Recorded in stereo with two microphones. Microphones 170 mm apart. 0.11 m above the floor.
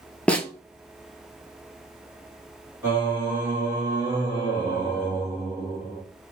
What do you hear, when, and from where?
0.3 s a snare drum: 5° left (ahead or behind), 0.6 m
2.8 s singing: 15° right (ahead or behind), 1.8 m